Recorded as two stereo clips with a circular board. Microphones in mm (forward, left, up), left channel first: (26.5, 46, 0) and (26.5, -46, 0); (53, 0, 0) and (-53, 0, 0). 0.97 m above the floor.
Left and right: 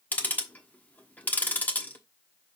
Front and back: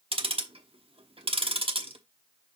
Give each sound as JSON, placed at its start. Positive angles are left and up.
{"t": 0.1, "sound": "ticking", "azimuth_deg": 160, "distance_m": 1.1}